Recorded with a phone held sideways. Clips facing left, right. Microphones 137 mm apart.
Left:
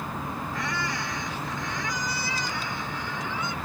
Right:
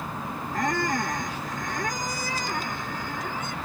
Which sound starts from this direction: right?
A squeak, at 0.5 s.